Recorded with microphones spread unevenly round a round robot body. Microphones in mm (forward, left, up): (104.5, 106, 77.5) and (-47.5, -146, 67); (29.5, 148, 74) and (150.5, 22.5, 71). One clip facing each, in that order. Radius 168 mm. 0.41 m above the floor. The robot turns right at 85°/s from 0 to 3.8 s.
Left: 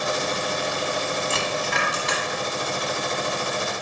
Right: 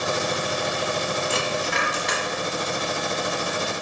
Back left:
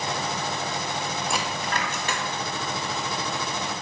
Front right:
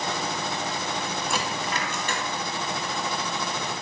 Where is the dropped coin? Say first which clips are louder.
Right 1 dB, even; 50° left, 0.9 m; by 2.2 s 130° left, 0.9 m.